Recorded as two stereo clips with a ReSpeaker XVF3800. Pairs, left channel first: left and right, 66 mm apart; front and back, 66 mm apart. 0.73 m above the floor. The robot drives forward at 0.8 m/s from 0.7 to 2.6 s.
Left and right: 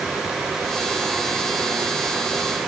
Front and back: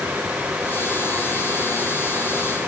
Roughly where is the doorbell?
I don't hear a doorbell.